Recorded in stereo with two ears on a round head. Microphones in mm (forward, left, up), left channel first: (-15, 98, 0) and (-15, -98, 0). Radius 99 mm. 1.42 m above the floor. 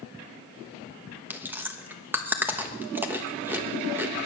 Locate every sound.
1.3 s chewing: 10° right (ahead or behind), 1.2 m